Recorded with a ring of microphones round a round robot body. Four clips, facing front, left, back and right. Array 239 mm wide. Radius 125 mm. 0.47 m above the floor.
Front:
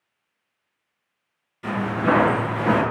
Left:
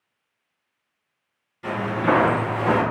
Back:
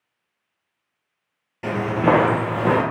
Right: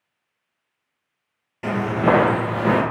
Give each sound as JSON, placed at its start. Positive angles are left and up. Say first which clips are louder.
{"t": 1.6, "sound": "footsteps", "louder": "right 3 dB, back 3 dB", "azimuth_deg": -130, "distance_m": 0.7}